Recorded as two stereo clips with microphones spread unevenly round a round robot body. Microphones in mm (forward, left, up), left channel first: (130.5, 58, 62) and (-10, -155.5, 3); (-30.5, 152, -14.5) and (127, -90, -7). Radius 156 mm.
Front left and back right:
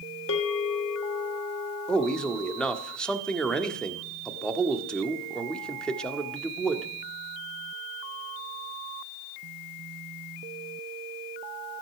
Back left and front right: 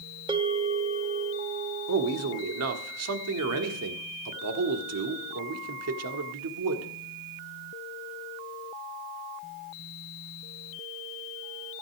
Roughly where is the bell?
Ahead.